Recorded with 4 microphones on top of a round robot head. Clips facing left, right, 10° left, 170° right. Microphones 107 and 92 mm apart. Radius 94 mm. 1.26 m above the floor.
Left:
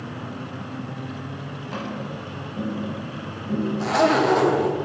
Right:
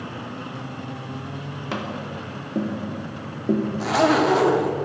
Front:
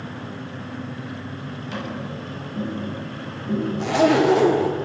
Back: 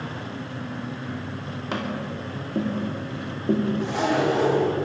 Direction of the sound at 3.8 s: Straight ahead.